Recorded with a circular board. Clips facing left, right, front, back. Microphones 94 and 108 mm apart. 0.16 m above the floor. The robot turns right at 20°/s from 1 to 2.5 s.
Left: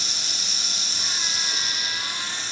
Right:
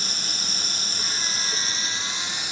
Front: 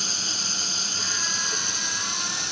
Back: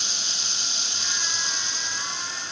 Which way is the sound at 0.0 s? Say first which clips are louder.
Right 2 dB, front 3 dB; 45° right.